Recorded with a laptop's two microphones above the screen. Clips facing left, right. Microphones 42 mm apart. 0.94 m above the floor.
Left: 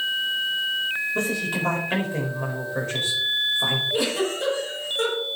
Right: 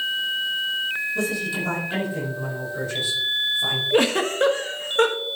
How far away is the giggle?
About 1.2 m.